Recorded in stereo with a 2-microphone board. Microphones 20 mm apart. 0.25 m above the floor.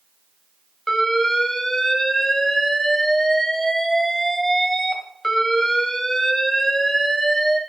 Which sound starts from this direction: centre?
An alarm, at 0.9 s.